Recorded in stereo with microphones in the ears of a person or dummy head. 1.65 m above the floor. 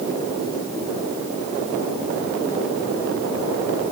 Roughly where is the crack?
No crack in this recording.